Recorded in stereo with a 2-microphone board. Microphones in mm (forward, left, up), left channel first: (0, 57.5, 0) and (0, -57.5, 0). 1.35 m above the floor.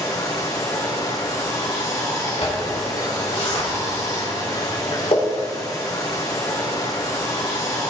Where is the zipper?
60° left (ahead or behind), 3 m.